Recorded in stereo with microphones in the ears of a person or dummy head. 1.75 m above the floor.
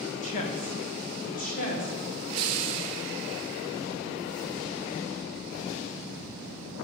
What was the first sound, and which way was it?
A woman speaking, 45° left (ahead or behind).